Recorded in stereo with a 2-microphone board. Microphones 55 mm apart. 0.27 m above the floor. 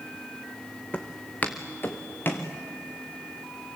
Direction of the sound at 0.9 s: 25° left (ahead or behind).